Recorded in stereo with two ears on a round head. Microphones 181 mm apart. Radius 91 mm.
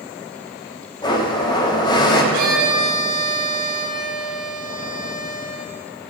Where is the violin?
60° right (ahead or behind), 2.5 m.